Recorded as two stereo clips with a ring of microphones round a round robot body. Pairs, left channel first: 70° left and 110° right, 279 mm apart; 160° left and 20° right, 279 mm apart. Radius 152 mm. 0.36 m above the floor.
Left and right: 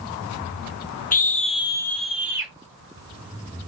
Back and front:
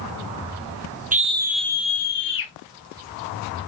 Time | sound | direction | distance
1.1 | a scream | 25° left | 1.2 m